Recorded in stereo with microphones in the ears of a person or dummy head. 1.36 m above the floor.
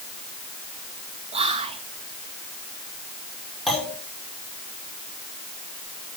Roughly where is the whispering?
Right.